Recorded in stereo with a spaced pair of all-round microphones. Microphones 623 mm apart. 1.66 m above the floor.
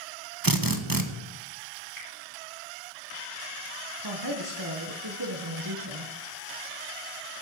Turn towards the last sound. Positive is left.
turn(degrees=-35)  # may be behind; listen again after turning